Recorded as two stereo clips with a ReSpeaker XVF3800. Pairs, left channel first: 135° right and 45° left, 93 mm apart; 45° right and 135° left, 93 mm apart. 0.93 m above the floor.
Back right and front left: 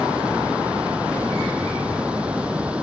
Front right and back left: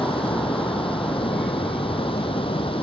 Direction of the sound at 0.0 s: 35° right.